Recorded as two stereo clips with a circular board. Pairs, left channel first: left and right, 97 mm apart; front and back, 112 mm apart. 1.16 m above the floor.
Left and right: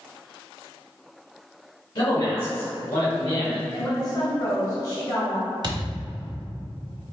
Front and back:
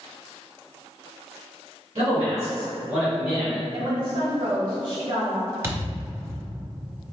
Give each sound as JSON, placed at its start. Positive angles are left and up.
{"t": 1.9, "sound": "a man speaking", "azimuth_deg": 120, "distance_m": 1.8}
{"t": 3.7, "sound": "a woman speaking", "azimuth_deg": 140, "distance_m": 1.4}
{"t": 5.6, "sound": "a thud", "azimuth_deg": -115, "distance_m": 1.1}